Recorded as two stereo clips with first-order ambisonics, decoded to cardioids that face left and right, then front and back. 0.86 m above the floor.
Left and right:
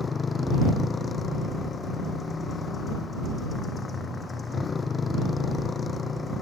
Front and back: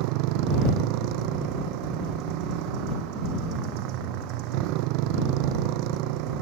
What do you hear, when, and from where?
0.0 s a motorcycle: 160° left